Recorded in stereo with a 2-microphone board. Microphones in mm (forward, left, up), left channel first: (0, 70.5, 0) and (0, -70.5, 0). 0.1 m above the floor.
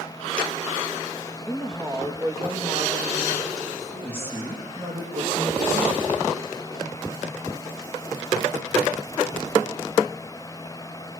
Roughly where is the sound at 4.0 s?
Centre.